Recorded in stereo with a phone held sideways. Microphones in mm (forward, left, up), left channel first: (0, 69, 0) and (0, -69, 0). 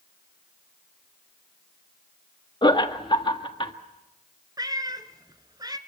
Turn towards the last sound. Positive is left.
turn(degrees=-30)  # may be behind; listen again after turning